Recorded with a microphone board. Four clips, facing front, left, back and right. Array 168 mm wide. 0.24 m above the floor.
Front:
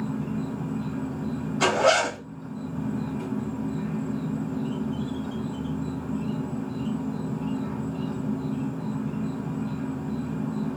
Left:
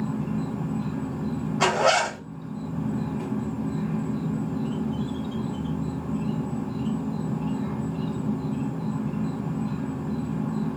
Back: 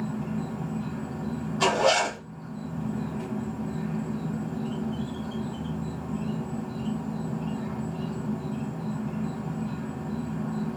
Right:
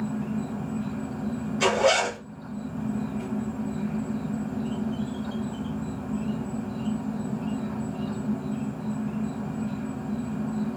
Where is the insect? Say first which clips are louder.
Left 1 dB, front 2 dB; 80° left, 1.4 m.